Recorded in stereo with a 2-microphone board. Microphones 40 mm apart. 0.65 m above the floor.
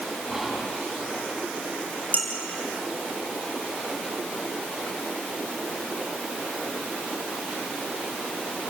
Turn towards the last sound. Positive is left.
turn(degrees=40)  # may be behind; listen again after turning